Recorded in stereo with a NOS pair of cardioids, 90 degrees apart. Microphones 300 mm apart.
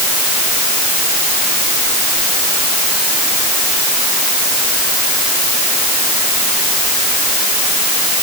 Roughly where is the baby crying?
No baby crying in this recording.